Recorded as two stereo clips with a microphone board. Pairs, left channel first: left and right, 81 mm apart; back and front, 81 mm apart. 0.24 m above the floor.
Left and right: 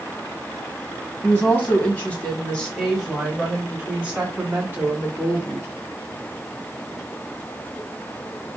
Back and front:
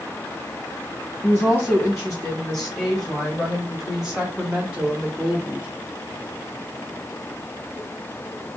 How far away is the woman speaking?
About 1.8 m.